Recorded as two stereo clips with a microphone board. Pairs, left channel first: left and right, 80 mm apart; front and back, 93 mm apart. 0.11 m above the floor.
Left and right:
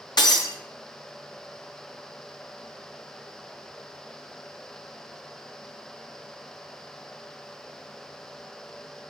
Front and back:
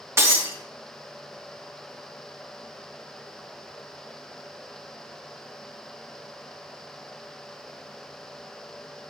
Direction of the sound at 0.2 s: 120° left.